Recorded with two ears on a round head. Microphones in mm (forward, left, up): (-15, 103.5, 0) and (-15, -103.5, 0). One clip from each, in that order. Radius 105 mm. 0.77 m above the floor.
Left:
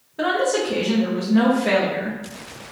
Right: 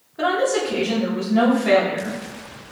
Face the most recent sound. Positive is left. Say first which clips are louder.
# even
turn(degrees=15)  # may be behind; listen again after turning